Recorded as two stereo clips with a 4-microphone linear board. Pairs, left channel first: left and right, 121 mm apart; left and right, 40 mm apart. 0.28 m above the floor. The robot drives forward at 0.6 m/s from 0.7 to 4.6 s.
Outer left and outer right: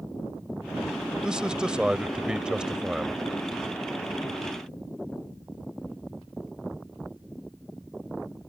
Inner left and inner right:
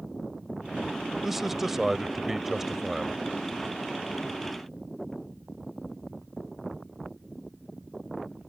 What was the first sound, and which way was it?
A man speaking, 5° right (ahead or behind).